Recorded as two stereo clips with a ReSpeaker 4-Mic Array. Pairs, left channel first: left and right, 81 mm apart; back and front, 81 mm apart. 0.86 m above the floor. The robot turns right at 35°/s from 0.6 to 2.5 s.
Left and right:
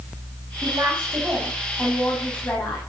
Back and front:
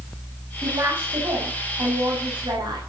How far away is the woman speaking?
About 6.5 m.